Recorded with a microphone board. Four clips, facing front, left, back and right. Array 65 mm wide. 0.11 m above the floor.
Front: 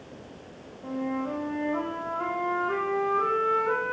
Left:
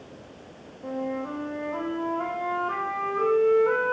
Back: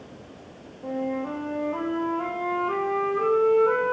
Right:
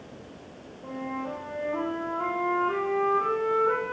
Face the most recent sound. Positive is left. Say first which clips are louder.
# left 3 dB, back 2 dB
turn(degrees=160)